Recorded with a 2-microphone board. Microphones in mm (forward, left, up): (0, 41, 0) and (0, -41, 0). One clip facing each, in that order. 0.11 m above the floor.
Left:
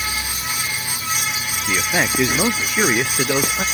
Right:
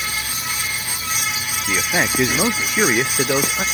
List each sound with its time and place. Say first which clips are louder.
1.7 s a man speaking: even; 15° right (ahead or behind)